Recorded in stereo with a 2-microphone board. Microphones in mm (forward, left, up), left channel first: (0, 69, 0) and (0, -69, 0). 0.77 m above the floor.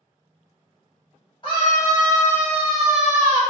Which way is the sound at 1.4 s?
35° left (ahead or behind).